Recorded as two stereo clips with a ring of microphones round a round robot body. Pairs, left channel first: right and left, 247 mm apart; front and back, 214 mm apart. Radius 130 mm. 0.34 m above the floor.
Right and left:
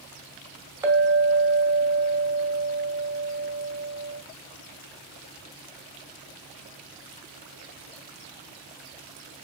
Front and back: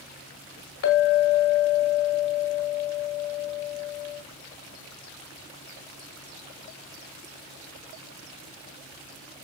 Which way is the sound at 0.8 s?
10° left.